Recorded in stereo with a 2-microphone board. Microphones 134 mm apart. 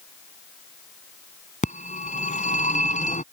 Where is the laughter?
I don't hear laughter.